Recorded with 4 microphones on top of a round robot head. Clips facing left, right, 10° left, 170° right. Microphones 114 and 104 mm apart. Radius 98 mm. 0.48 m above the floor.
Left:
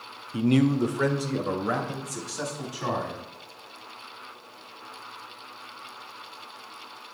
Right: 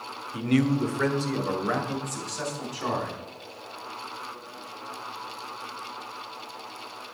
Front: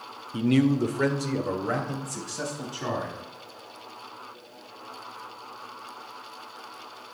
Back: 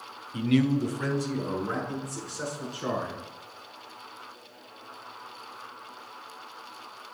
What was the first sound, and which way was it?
A man speaking, 50° left.